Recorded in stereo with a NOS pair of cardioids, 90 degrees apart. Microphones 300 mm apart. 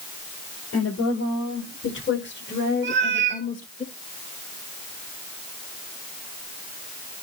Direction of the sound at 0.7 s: 55° left.